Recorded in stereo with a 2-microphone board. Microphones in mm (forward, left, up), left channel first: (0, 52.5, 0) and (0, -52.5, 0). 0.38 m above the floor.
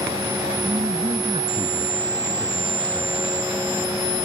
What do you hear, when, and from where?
0.6 s a man speaking: 55° right (ahead or behind)